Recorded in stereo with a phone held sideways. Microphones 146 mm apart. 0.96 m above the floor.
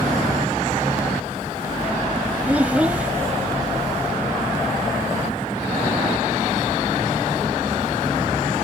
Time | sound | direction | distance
2.5 | a child speaking | 10° right (ahead or behind) | ?